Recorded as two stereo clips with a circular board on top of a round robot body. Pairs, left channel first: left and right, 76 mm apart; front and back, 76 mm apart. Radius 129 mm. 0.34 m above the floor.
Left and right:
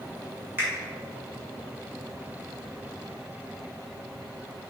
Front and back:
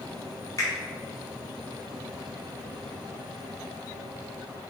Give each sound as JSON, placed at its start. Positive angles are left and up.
{"t": 0.6, "sound": "a finger snap", "azimuth_deg": -30, "distance_m": 1.6}